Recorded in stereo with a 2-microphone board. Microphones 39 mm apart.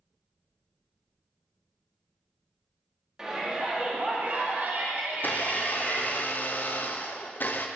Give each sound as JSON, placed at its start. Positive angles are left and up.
{"t": 3.2, "sound": "a shout", "side_deg": -15, "distance_m": 2.5}
{"t": 5.1, "sound": "a blender", "side_deg": 55, "distance_m": 0.7}